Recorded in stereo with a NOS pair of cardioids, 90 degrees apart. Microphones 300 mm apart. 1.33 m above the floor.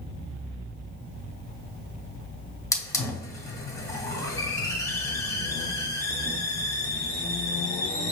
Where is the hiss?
10° left, 0.9 m.